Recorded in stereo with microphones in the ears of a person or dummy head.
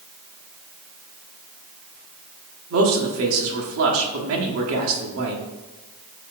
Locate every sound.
2.7 s a man speaking: 80° right, 1.1 m